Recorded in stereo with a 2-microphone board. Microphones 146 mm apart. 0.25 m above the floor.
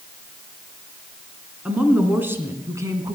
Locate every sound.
1.6 s a woman speaking: 5° right (ahead or behind), 2.5 m; by 3.2 s 25° right (ahead or behind), 2 m